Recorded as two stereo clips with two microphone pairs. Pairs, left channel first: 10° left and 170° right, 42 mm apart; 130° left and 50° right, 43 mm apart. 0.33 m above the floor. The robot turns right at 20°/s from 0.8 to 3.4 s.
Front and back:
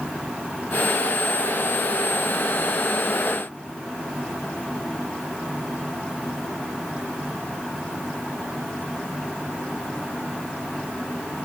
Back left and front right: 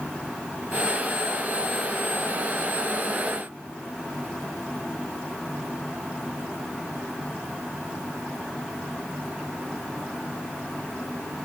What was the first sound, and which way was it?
Only background noise.